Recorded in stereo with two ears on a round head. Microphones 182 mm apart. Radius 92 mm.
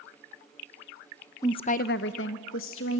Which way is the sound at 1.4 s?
15° left (ahead or behind).